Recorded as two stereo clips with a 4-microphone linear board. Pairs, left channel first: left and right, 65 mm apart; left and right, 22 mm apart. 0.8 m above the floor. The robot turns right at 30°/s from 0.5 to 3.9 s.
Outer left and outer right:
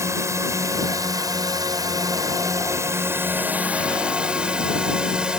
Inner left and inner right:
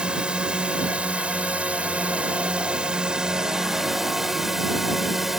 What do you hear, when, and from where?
0.0 s a drone: 50° right (ahead or behind); by 5.4 s 15° right (ahead or behind)